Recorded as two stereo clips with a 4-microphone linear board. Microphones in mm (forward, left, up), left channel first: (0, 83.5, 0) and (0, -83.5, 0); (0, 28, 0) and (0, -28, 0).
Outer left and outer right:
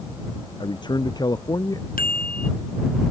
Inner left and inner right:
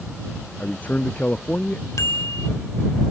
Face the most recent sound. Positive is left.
turn(degrees=60)  # may be behind; listen again after turning